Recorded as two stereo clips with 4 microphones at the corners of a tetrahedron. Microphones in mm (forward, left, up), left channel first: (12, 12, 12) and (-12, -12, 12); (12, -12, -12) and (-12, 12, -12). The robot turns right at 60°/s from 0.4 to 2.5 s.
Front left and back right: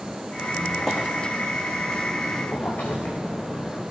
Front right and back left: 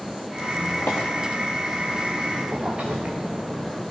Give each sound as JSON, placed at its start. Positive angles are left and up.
{"t": 0.4, "sound": "a squeak", "azimuth_deg": -55, "distance_m": 3.0}